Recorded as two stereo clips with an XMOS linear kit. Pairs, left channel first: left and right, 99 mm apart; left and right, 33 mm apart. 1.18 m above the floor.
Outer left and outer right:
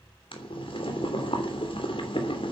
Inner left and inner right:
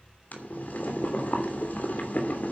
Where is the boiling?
65° left (ahead or behind), 3 m.